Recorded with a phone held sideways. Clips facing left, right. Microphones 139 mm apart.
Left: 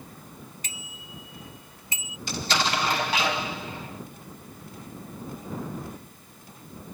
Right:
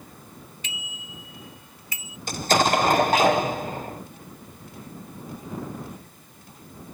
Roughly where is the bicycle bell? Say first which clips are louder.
Right 2 dB; left.